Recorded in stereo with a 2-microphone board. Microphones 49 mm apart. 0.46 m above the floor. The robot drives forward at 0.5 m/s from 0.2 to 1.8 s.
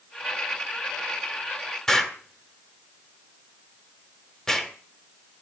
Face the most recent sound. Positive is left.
turn(degrees=10)  # may be behind; listen again after turning